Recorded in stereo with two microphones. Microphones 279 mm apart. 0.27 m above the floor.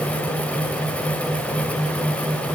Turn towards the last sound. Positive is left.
No sound to turn to.